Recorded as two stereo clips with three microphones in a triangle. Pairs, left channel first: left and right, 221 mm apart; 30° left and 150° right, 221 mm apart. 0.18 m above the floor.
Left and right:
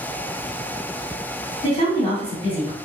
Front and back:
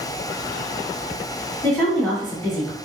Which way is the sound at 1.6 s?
95° left.